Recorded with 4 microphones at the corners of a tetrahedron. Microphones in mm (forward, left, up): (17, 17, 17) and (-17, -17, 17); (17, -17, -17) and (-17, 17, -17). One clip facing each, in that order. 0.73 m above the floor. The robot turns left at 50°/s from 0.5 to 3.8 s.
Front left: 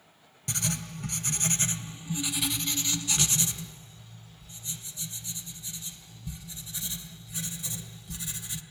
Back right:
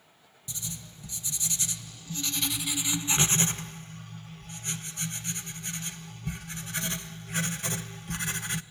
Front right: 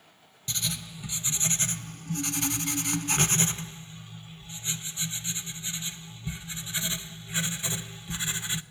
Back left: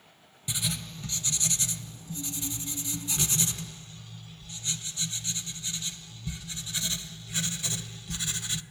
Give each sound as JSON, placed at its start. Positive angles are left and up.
{"t": 0.5, "sound": "writing", "azimuth_deg": 55, "distance_m": 0.6}